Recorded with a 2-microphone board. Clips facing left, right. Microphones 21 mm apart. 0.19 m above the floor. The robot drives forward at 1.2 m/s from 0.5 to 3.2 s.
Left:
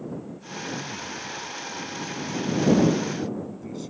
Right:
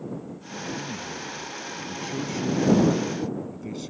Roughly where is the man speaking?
Centre.